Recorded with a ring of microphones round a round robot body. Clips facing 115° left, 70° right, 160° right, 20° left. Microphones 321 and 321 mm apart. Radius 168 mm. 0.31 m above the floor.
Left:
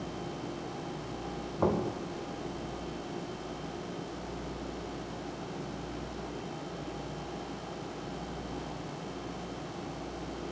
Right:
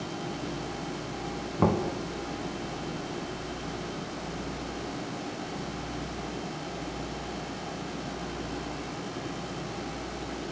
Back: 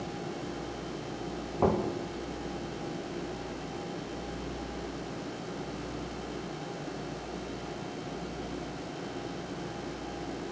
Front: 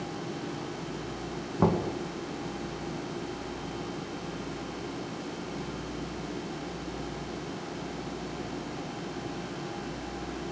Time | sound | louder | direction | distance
1.6 | knocking | right 3 dB, front 1 dB | 30° right | 2.5 m